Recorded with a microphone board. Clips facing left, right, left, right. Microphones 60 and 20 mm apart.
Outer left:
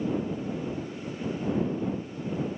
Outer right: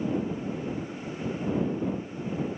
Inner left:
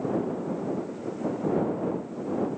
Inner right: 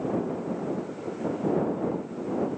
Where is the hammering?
No hammering in this recording.